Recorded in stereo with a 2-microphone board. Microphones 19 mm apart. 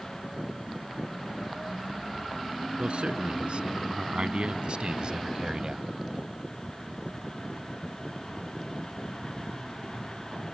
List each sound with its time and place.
2.8 s a man speaking: 80° right; by 5.8 s 45° right (ahead or behind)